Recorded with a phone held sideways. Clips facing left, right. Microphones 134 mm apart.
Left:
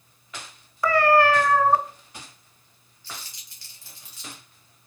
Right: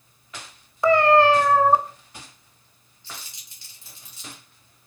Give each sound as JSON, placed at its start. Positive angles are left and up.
{"t": 0.8, "sound": "a cat meowing", "side_deg": -25, "distance_m": 0.5}
{"t": 3.0, "sound": "crumpling", "side_deg": -20, "distance_m": 2.0}